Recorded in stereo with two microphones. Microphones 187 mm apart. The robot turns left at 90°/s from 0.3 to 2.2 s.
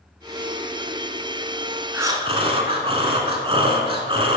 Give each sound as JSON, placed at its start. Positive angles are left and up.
{"t": 1.9, "sound": "breathing", "side_deg": -10, "distance_m": 1.0}